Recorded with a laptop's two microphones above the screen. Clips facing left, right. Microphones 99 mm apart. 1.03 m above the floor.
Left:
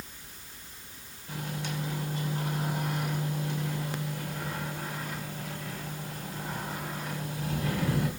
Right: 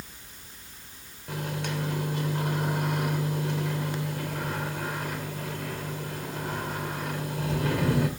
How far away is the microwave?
About 2.5 m.